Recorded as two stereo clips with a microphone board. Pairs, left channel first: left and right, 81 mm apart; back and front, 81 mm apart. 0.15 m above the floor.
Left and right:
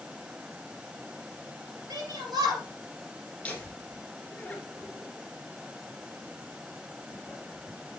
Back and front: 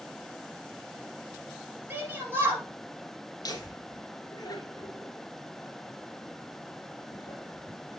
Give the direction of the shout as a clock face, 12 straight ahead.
2 o'clock.